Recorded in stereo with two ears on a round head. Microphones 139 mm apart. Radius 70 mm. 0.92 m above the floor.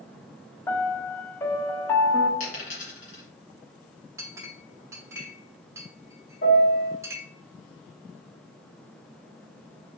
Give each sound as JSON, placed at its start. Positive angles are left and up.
{"t": 0.7, "sound": "a piano", "side_deg": 15, "distance_m": 0.6}
{"t": 2.4, "sound": "a dropped coin", "side_deg": 50, "distance_m": 2.5}
{"t": 4.2, "sound": "a clink", "side_deg": -20, "distance_m": 0.8}
{"t": 6.4, "sound": "a piano", "side_deg": 75, "distance_m": 1.6}